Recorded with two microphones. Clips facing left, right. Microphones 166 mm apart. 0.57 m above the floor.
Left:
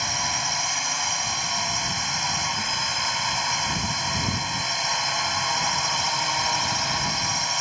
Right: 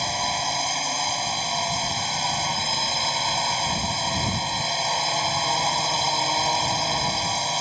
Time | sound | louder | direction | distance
0.0 | a drone | right 4 dB | 30° right (ahead or behind) | ?